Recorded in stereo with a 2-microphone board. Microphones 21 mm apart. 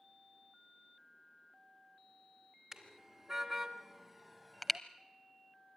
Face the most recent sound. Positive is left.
turn(degrees=10)  # may be behind; listen again after turning